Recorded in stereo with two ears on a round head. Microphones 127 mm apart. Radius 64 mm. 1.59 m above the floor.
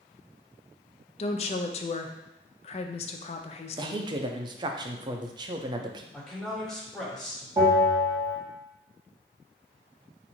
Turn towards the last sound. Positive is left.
turn(degrees=-30)  # may be behind; listen again after turning